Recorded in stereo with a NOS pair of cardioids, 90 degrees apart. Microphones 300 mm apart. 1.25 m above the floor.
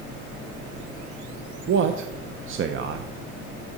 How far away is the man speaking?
About 0.5 m.